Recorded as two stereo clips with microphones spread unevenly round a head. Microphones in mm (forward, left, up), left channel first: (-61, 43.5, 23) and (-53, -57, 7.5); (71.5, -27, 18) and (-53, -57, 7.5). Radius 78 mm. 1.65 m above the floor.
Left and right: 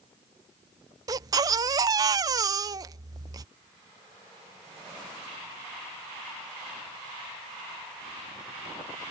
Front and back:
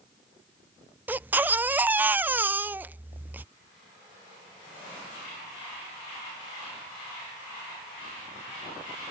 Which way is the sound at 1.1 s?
95° right.